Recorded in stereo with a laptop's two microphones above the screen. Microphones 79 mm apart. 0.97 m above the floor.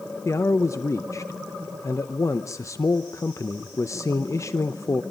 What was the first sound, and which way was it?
A man speaking, 40° left (ahead or behind).